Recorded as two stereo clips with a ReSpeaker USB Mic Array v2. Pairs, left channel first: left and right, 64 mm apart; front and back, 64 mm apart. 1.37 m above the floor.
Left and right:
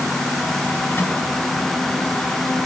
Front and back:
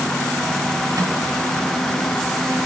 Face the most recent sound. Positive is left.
turn(degrees=150)